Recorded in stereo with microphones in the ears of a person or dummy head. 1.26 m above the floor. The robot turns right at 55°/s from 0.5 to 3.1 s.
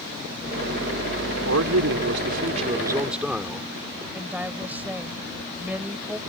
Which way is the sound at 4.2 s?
10° right (ahead or behind).